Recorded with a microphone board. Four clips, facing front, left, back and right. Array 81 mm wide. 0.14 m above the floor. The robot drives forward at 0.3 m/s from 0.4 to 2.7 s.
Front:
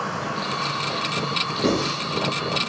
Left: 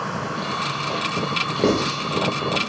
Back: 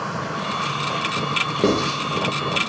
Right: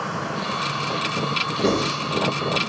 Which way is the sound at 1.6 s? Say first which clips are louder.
Left 2 dB, back 3 dB; 140° left.